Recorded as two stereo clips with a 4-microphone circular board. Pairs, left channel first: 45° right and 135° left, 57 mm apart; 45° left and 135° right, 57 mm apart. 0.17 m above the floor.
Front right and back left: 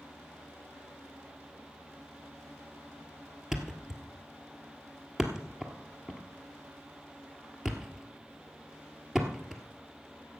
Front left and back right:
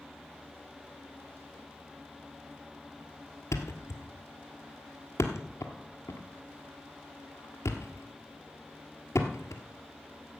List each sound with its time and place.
3.5 s a thud: 55° left, 1.3 m